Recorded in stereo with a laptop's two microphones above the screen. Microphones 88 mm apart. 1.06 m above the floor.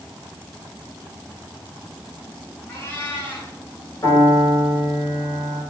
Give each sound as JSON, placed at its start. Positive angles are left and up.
{"t": 2.7, "sound": "a cat meowing", "side_deg": 25, "distance_m": 2.5}
{"t": 4.0, "sound": "a piano", "side_deg": 45, "distance_m": 5.0}